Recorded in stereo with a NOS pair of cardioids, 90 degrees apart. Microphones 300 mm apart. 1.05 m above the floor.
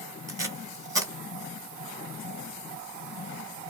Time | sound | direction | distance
0.3 | tape being pulled | 10° right | 1.3 m